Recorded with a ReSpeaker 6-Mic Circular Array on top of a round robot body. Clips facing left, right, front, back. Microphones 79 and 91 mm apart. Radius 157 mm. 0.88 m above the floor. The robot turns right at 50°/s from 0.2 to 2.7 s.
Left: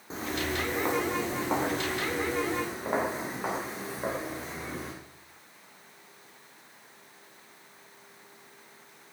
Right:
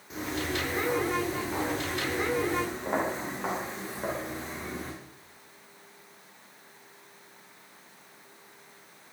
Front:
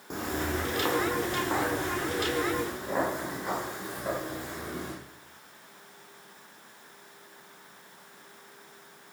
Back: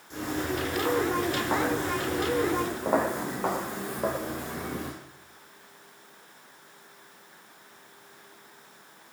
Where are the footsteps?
35° left, 3.5 m; by 4.9 s 175° left, 6.5 m.